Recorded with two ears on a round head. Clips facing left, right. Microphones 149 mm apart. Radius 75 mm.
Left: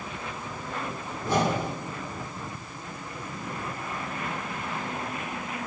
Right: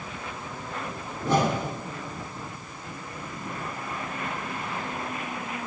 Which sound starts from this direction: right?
A whoosh, at 1.2 s.